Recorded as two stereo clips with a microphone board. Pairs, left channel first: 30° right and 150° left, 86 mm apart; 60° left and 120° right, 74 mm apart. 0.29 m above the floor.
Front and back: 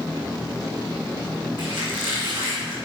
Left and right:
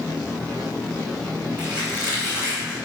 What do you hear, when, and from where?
1.6 s a squeak: 165° left, 3 m